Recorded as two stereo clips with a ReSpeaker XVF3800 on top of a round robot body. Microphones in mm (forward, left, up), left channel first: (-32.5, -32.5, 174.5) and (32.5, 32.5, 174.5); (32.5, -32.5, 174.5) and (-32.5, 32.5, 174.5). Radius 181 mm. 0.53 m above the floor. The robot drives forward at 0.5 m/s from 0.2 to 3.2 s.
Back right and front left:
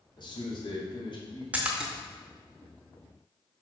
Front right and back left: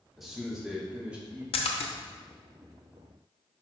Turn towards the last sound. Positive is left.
turn(degrees=-120)